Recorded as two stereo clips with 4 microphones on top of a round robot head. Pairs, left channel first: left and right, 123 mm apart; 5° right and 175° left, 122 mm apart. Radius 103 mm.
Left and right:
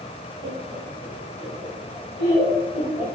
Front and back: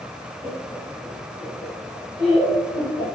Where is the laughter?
110° right, 0.7 m; by 3.0 s 25° right, 3 m.